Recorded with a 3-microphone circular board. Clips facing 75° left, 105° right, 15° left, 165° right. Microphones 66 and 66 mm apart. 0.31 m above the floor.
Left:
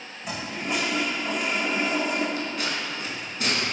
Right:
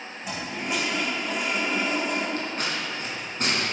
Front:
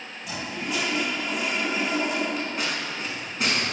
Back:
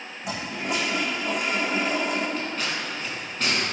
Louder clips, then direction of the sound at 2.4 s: Even, even; 65° right.